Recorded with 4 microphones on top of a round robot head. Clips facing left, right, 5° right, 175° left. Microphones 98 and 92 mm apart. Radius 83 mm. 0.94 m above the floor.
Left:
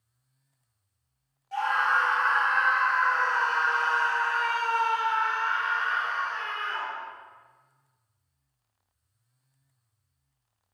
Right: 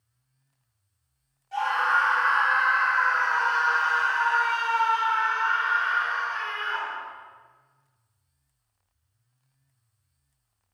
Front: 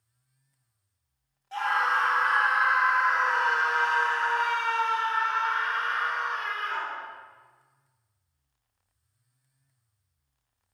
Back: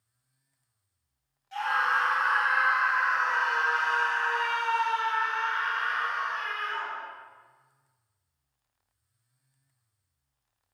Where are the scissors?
No scissors in this recording.